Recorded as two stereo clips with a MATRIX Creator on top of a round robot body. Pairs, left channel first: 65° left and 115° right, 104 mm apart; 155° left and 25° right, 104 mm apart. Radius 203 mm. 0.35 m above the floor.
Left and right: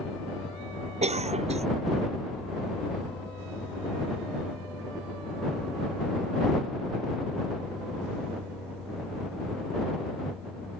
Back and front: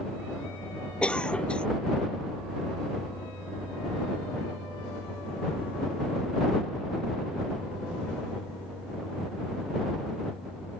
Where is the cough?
120° right.